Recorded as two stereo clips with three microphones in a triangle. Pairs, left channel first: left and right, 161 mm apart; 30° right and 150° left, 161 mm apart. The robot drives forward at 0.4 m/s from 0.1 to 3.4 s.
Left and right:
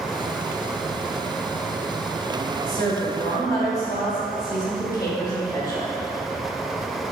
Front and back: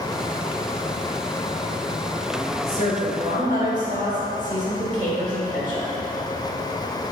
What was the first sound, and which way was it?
A woman speaking, 140° left.